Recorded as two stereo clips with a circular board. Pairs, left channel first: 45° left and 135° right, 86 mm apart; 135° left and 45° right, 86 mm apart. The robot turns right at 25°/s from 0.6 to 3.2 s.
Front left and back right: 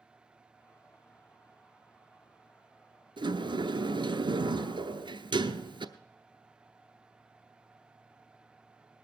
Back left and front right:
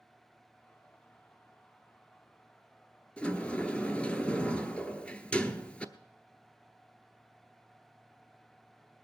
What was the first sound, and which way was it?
A sliding door, 150° right.